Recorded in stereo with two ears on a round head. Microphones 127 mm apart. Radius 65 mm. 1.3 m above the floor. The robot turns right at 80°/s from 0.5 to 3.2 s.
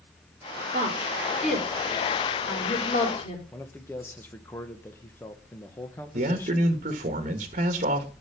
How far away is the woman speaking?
About 4 m.